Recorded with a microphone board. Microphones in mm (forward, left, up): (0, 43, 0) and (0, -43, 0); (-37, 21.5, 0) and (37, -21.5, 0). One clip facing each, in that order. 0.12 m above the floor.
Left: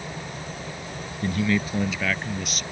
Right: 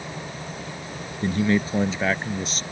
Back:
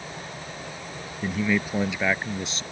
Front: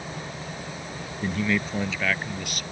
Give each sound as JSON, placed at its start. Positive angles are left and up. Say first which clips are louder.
{"t": 1.2, "sound": "a man speaking", "louder": "right 2 dB, back 1 dB", "azimuth_deg": -120}